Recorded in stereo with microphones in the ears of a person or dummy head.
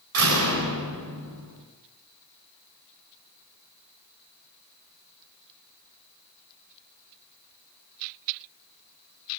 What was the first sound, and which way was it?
A door slam, 80° right.